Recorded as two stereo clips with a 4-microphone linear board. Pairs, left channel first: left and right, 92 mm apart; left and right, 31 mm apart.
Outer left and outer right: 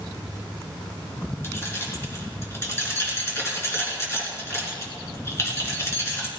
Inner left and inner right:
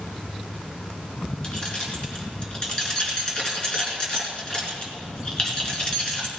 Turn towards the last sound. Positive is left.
turn(degrees=30)  # may be behind; listen again after turning